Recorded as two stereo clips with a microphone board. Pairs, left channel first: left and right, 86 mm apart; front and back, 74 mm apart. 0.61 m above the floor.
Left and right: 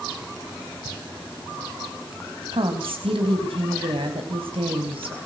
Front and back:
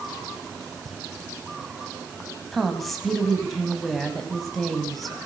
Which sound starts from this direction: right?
A woman speaking, at 2.5 s.